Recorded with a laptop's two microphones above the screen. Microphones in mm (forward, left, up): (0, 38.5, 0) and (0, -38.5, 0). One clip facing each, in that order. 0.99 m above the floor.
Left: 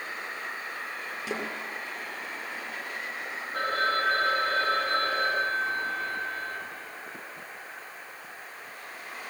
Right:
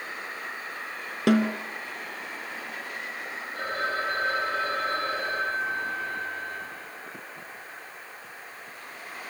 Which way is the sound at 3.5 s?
60° left (ahead or behind).